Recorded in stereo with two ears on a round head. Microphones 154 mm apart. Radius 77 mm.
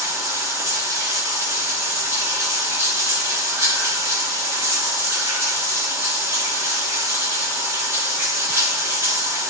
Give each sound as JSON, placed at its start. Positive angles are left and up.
{"t": 0.0, "sound": "running water", "side_deg": -15, "distance_m": 3.0}